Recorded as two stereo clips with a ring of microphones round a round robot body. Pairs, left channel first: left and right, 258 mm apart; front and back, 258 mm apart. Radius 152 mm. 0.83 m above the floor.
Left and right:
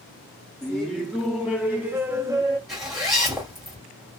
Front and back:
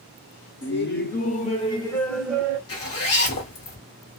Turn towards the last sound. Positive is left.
turn(degrees=0)